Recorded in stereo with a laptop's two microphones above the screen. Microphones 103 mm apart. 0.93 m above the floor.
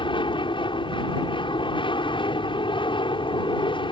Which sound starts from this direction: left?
An aircraft, at 0.0 s.